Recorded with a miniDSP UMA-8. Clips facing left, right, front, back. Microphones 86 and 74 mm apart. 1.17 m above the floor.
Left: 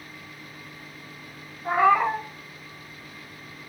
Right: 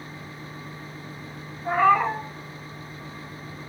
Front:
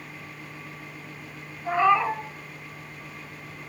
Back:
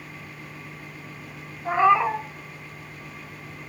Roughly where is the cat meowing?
Behind.